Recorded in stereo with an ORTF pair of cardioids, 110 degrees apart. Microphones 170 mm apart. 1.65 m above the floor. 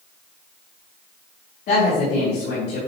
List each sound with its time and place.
1.7 s a woman speaking: 65° left, 3.5 m